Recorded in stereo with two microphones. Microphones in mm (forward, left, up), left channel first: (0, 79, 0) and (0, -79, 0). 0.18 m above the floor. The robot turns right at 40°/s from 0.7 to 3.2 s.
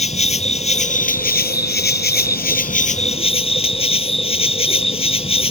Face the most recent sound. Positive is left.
turn(degrees=145)